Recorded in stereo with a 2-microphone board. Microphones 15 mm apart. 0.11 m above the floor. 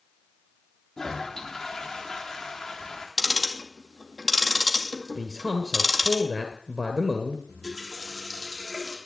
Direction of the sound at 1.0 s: 25° left (ahead or behind).